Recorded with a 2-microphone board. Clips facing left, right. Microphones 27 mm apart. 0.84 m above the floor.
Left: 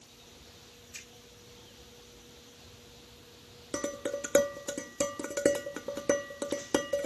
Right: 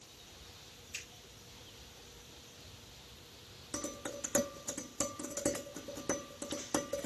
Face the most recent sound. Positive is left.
turn(degrees=70)  # may be behind; listen again after turning